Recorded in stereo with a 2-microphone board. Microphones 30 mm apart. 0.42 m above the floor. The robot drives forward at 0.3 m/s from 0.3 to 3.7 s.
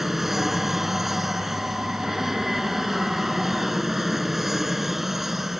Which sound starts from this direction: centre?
An aircraft, at 0.0 s.